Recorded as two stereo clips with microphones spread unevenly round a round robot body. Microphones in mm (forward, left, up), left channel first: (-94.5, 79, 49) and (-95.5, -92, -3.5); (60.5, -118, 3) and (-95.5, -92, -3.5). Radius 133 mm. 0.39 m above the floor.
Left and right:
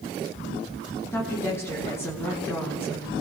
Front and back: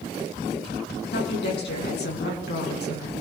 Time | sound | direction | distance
1.1 | a woman speaking | 5° left | 5 m